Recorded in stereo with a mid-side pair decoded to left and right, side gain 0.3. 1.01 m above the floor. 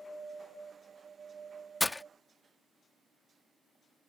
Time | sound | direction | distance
1.8 | breaking glass | 30° left | ?